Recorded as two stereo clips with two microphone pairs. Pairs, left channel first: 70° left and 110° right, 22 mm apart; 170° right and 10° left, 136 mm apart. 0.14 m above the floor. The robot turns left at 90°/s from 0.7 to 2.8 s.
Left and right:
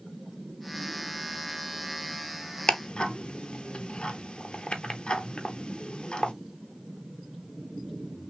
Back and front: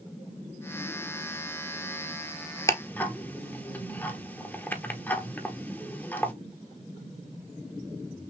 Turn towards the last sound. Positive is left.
turn(degrees=115)